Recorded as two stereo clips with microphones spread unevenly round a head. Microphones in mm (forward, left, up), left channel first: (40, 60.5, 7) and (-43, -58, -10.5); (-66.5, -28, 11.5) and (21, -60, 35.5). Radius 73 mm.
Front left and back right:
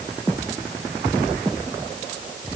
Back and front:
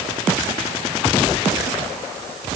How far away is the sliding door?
I don't hear a sliding door.